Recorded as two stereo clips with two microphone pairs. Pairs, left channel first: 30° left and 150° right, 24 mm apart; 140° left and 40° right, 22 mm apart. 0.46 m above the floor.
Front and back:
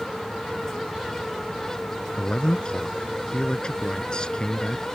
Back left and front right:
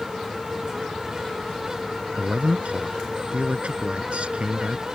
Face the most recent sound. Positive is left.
turn(degrees=-20)